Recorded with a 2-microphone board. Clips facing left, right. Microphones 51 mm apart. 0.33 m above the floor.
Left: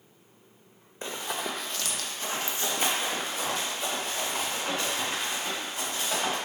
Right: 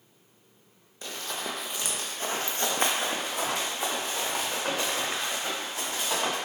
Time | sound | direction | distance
1.0 | running footsteps | 25° left (ahead or behind) | 0.6 m